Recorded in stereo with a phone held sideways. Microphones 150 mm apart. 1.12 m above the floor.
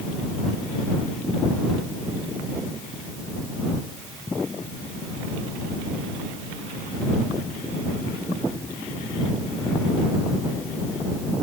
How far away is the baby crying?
No baby crying in this recording.